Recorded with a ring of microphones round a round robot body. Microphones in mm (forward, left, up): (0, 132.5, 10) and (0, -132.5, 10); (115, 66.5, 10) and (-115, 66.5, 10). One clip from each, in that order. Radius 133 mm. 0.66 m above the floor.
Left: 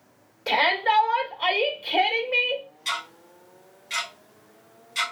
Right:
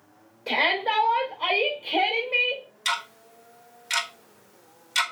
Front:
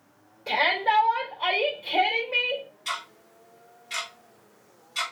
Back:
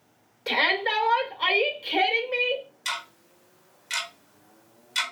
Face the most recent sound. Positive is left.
turn(degrees=-130)